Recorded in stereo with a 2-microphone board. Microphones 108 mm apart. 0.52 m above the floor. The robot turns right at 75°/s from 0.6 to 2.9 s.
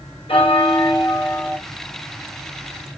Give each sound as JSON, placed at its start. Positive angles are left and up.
{"t": 0.3, "sound": "a bell", "azimuth_deg": 100, "distance_m": 1.7}